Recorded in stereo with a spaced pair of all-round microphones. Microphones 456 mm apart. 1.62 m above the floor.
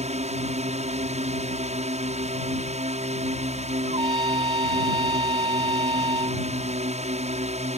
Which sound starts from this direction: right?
A trumpet, at 3.9 s.